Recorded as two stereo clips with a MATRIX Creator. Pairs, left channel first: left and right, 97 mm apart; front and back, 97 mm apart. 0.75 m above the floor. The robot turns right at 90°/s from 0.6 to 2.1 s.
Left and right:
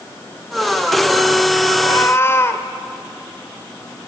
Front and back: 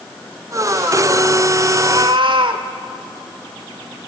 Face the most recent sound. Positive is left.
turn(degrees=150)